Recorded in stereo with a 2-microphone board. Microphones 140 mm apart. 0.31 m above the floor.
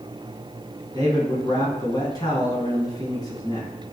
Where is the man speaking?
30° left (ahead or behind), 3 m.